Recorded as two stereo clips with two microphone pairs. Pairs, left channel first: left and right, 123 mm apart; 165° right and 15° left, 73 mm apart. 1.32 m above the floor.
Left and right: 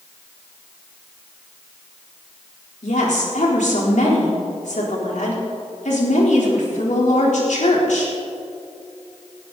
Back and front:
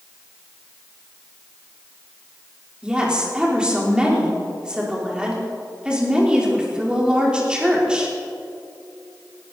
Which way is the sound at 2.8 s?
90° left.